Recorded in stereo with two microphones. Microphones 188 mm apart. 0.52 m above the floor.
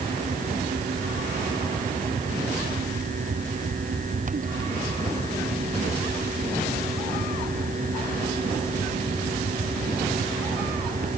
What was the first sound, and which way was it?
Only background noise.